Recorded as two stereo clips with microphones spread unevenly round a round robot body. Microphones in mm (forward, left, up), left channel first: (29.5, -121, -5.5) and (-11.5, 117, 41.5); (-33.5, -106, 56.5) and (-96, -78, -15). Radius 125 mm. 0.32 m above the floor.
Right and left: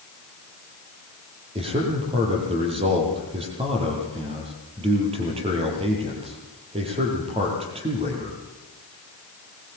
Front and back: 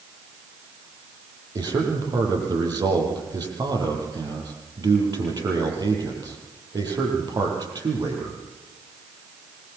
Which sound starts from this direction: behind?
A man speaking, at 1.6 s.